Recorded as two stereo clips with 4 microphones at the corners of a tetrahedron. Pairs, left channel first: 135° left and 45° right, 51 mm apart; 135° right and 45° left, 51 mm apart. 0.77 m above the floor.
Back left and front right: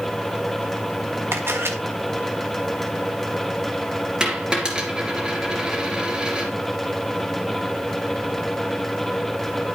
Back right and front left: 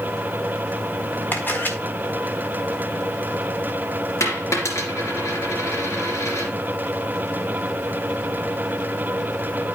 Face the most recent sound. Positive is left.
turn(degrees=-120)